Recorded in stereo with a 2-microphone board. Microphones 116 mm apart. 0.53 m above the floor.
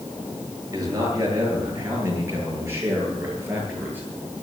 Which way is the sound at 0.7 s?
30° right (ahead or behind).